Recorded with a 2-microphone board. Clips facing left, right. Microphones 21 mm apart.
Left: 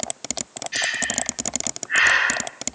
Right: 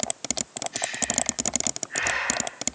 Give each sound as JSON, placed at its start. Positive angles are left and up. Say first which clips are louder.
{"t": 0.7, "sound": "breathing", "louder": "left 6 dB", "side_deg": 60, "distance_m": 1.1}